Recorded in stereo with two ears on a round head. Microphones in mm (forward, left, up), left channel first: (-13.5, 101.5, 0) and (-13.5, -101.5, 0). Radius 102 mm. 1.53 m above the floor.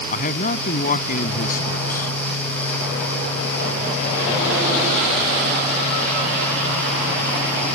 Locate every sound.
0.1 s a man speaking: 35° left (ahead or behind)